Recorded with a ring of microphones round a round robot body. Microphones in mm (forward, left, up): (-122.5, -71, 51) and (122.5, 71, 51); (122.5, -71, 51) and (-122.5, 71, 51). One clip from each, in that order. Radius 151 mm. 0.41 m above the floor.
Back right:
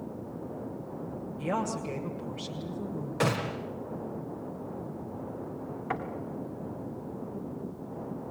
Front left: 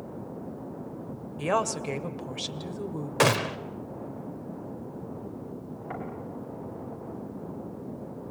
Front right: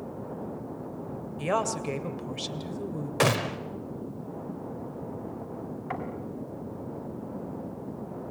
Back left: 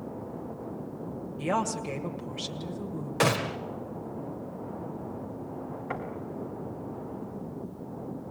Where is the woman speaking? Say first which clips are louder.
Front left 5 dB, front right 1 dB; 45° left, 2 m.